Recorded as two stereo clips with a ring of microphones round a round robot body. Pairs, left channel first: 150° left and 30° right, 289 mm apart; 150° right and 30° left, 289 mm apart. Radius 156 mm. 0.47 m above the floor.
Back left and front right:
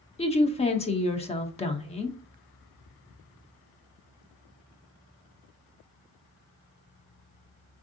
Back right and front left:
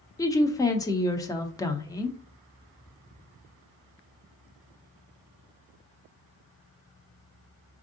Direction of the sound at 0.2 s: 155° left.